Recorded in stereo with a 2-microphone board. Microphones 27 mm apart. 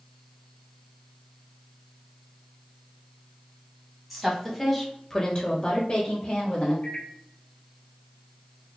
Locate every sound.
4.1 s a woman speaking: 5° right (ahead or behind), 2.5 m; by 6.7 s 40° left (ahead or behind), 2 m
6.8 s a microwave: 60° left (ahead or behind), 1.7 m